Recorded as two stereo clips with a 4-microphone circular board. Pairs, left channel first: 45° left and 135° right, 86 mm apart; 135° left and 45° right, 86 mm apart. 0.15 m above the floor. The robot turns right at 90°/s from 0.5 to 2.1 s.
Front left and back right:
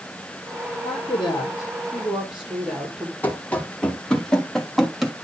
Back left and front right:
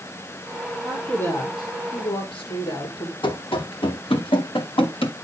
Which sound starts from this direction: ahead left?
A woman speaking, at 0.8 s.